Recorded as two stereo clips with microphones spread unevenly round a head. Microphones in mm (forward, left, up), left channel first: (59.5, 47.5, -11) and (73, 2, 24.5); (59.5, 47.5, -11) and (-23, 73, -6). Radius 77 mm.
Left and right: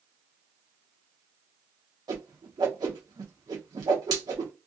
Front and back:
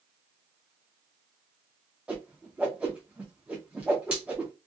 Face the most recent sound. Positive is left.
turn(degrees=-115)